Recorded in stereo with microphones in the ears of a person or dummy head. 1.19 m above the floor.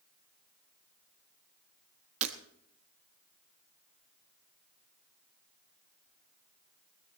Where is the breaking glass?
40° right (ahead or behind), 1.1 m.